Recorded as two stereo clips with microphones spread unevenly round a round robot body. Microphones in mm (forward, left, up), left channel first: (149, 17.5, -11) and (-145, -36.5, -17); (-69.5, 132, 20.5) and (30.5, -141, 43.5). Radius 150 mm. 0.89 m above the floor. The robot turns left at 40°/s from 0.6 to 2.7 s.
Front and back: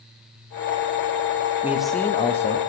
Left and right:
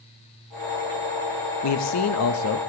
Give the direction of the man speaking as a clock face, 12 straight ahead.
8 o'clock.